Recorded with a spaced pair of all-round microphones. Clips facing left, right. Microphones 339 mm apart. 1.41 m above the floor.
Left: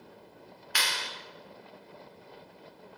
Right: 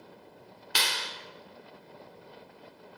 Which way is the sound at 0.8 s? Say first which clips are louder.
Right 2 dB; 50° right (ahead or behind).